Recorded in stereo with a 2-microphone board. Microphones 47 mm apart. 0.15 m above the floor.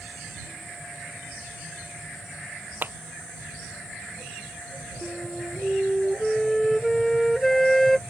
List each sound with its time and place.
2.8 s a clap: 45° right (ahead or behind)
5.0 s a flute: 5° left (ahead or behind)